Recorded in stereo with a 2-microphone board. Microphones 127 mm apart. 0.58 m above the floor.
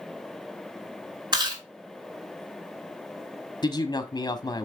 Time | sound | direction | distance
1.3 | chewing | 35° right (ahead or behind) | 2.5 m
3.6 | a man speaking | 35° left (ahead or behind) | 0.9 m